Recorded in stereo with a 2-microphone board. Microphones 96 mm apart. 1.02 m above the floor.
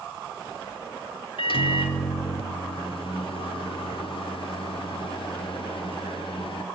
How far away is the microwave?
About 2.5 m.